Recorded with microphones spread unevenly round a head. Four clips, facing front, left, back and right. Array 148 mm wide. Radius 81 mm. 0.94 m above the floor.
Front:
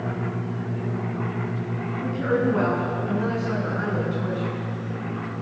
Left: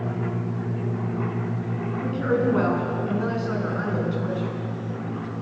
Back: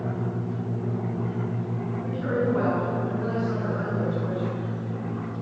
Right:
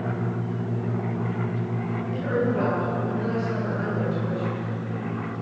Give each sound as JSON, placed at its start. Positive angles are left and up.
{"t": 2.0, "sound": "a woman speaking", "azimuth_deg": 55, "distance_m": 9.5}